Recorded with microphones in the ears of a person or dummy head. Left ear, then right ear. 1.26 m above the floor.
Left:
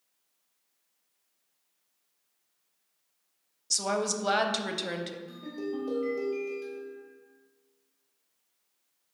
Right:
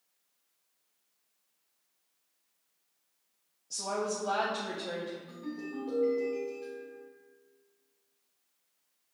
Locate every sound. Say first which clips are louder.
3.7 s a woman speaking: left 5 dB; 70° left (ahead or behind), 0.6 m
5.3 s a ringtone: left 4 dB; 10° left (ahead or behind), 1.8 m